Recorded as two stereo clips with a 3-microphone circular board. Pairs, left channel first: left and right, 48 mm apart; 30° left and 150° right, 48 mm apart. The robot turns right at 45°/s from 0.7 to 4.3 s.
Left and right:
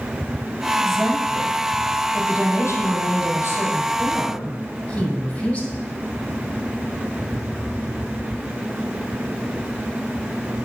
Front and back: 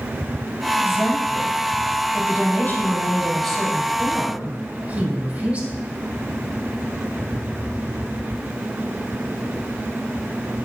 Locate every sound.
0.8 s a woman speaking: 10° right, 4 m; by 5.7 s 150° left, 4 m